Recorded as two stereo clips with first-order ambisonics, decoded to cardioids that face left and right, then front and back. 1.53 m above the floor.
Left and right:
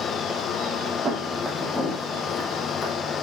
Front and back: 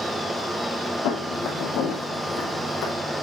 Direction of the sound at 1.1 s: 20° right.